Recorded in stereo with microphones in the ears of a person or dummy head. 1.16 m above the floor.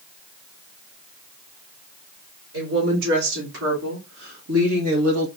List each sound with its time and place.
2.5 s a woman speaking: 70° right (ahead or behind), 3 m